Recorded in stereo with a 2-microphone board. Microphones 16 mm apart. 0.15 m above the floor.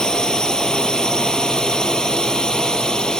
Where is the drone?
65° left (ahead or behind); by 3.2 s 70° left (ahead or behind).